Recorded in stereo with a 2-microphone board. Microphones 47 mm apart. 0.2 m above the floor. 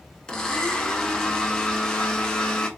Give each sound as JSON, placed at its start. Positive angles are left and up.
{"t": 0.3, "sound": "a blender", "side_deg": 20, "distance_m": 0.6}